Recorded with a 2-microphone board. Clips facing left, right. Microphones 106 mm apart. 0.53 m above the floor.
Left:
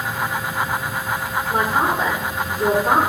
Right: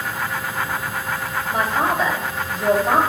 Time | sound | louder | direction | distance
1.5 | a man speaking | left 1 dB | 55° left (ahead or behind) | 2 m